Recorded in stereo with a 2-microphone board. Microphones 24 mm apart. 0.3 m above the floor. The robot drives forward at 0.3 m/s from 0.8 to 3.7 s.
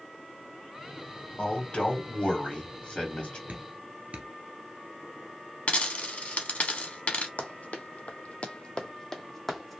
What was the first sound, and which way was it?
A man speaking, 50° left (ahead or behind).